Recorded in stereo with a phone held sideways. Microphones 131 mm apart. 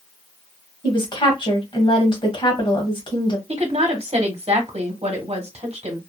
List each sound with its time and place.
0.8 s a woman speaking: 40° left (ahead or behind), 1.3 m
3.5 s a woman speaking: 55° right (ahead or behind), 1.1 m